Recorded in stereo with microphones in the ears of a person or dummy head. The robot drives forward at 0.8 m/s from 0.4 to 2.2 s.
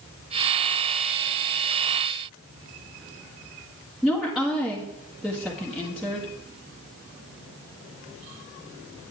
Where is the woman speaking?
5° right (ahead or behind), 1.6 m.